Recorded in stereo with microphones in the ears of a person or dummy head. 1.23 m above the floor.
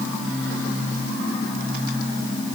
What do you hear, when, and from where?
Only background noise.